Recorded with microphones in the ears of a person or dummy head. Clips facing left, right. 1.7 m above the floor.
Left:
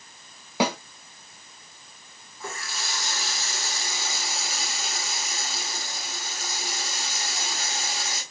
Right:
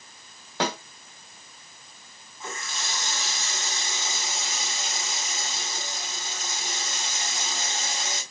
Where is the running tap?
5° left (ahead or behind), 6.5 m.